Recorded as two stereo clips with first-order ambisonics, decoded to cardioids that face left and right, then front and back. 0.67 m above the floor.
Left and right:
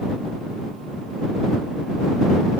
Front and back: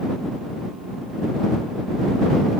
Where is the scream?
I don't hear a scream.